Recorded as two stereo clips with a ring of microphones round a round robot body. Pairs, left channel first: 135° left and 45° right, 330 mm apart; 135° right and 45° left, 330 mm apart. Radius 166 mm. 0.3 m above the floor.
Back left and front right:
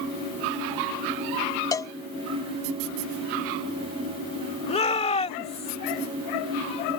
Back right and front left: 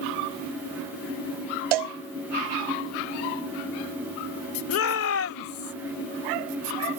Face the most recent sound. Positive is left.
turn(degrees=-160)